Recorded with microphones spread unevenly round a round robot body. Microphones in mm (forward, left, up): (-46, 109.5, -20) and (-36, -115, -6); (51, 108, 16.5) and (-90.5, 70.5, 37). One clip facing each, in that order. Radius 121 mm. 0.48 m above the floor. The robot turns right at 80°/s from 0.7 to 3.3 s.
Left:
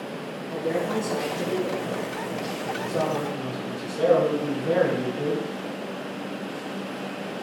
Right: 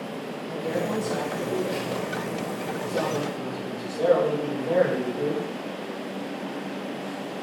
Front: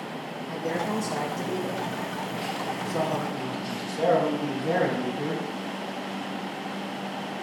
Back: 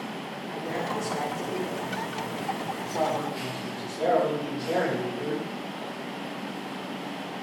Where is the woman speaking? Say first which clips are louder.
Left 2 dB, front 3 dB; 20° right, 2.5 m; by 1.8 s 70° left, 2.5 m.